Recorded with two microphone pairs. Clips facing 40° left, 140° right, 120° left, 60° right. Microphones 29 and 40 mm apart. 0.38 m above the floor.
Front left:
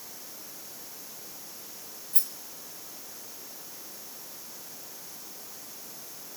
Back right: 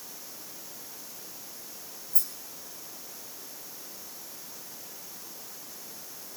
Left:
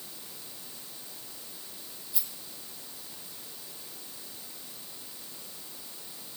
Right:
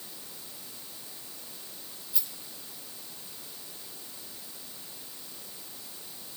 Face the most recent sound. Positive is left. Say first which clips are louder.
# front left 3 dB, even
turn(degrees=25)